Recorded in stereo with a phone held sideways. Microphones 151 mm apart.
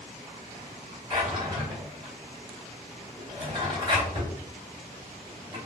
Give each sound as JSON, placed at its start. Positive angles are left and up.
{"t": 1.1, "sound": "a drawer", "side_deg": -30, "distance_m": 1.8}